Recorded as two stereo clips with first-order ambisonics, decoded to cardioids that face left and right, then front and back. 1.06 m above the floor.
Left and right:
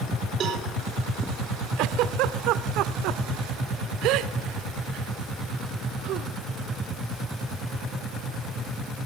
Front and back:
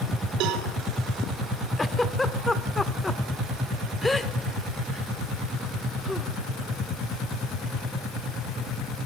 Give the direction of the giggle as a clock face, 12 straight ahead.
3 o'clock.